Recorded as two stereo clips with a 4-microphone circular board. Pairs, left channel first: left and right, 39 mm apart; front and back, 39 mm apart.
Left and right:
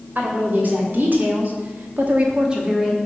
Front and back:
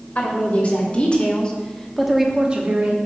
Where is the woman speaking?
50° right, 2.5 m; by 3.0 s 175° right, 1.2 m.